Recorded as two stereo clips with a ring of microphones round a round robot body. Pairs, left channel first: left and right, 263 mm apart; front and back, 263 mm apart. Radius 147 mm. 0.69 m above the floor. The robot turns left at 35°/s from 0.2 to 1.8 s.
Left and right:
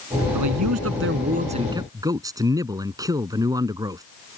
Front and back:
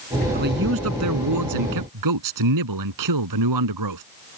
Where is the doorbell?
No doorbell in this recording.